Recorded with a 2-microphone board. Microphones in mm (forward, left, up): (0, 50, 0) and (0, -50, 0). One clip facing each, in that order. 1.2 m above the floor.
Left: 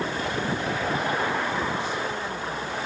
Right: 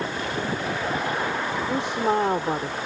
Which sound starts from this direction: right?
A woman speaking, at 1.7 s.